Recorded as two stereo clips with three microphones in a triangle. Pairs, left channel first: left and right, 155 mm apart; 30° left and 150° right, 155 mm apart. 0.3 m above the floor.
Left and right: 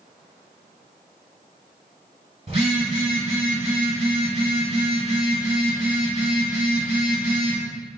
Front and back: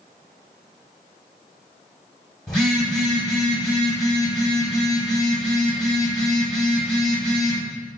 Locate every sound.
2.5 s a phone buzzing: 55° right, 1.4 m